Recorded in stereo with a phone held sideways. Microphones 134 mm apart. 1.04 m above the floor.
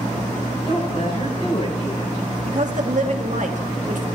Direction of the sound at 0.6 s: 50° left (ahead or behind).